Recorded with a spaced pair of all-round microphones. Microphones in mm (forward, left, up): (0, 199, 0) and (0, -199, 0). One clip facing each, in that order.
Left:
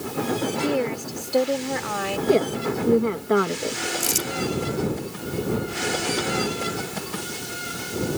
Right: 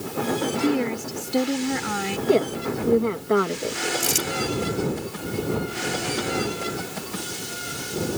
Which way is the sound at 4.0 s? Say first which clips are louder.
Right 1 dB; 75° right (ahead or behind).